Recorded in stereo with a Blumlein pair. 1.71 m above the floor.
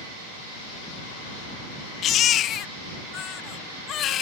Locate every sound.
2.0 s a baby crying: 30° left